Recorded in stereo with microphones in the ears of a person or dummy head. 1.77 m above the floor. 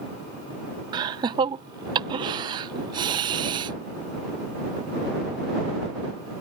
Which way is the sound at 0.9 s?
30° right (ahead or behind).